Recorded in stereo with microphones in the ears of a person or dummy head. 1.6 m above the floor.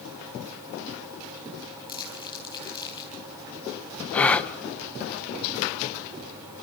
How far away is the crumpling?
About 4.5 m.